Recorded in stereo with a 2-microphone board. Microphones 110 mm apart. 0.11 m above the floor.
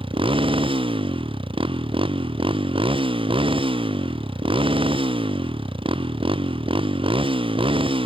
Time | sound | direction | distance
0.0 | a motorcycle | 55° right (ahead or behind) | ?